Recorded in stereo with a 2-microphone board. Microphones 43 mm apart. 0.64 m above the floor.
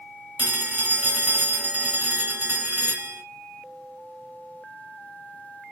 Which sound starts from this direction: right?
A phone ringing, at 0.4 s.